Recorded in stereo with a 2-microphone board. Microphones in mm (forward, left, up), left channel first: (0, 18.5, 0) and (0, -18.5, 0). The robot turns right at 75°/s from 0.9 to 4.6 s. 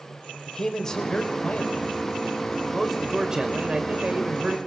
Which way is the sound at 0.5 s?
30° left.